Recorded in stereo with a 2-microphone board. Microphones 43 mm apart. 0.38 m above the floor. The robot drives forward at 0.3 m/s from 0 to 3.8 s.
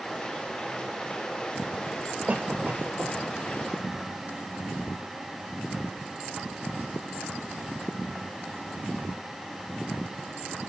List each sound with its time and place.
2.3 s a cough: 40° right (ahead or behind), 1.4 m